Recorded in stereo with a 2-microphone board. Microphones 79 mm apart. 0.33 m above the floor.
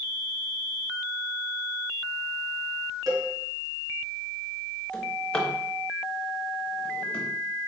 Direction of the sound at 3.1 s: 50° right (ahead or behind).